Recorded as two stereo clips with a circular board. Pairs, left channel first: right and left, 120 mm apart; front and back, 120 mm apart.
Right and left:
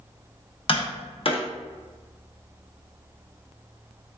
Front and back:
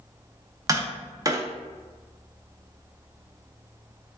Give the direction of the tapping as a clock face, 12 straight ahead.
4 o'clock.